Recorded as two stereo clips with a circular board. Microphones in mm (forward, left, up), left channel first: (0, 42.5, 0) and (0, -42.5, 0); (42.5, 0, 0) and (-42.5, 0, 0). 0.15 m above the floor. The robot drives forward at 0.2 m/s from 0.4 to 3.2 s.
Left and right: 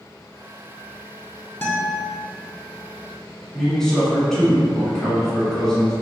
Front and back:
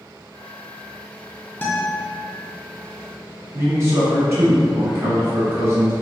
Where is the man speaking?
170° left, 1.2 m.